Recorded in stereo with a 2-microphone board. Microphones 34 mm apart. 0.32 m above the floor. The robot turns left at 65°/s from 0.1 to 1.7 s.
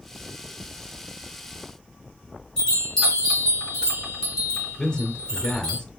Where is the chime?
25° left (ahead or behind), 3.5 m.